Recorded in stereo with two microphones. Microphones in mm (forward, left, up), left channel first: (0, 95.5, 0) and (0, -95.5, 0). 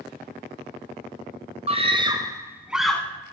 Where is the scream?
35° right (ahead or behind), 1.6 m; by 3.0 s 5° left (ahead or behind), 1.2 m.